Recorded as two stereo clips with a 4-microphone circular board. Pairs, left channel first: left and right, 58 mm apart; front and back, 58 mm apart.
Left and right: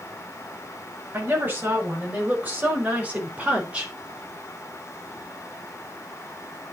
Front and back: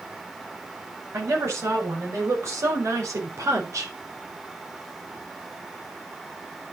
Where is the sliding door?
I don't hear a sliding door.